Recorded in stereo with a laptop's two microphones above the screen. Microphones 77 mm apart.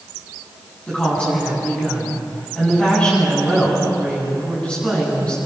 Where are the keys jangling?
No keys jangling in this recording.